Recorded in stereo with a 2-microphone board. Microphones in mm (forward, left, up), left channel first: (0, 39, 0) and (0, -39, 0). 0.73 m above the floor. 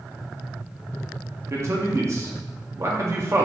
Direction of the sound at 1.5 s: 40° right (ahead or behind).